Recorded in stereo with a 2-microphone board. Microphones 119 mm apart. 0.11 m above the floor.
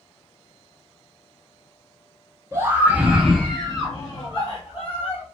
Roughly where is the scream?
Right.